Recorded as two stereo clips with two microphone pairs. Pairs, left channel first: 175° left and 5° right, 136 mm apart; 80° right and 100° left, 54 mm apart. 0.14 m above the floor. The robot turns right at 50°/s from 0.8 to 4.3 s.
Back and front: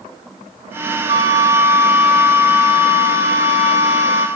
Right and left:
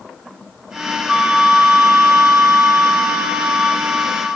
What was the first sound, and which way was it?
A flute, 35° left.